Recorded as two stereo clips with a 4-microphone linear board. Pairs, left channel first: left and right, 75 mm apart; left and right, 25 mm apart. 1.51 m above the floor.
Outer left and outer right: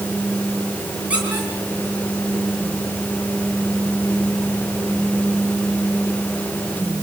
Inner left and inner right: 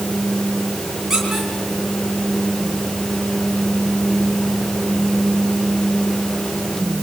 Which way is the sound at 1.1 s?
15° right (ahead or behind).